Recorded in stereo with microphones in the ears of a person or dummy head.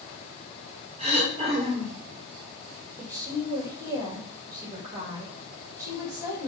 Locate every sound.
1.0 s throat clearing: 35° right (ahead or behind), 3.5 m
3.0 s a woman speaking: 15° right (ahead or behind), 2.5 m